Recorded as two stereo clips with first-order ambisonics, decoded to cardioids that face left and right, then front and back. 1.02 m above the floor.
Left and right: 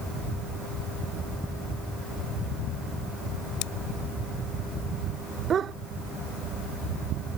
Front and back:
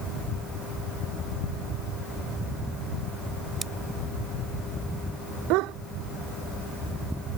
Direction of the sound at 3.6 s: 105° left.